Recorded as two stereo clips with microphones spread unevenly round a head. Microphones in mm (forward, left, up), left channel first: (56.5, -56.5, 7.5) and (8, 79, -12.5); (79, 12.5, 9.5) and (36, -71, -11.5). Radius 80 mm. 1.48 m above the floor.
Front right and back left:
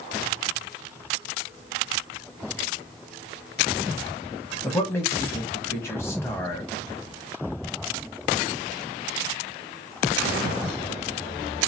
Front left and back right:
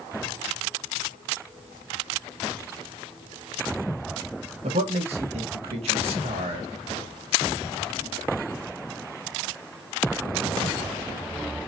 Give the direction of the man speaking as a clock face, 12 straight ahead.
5 o'clock.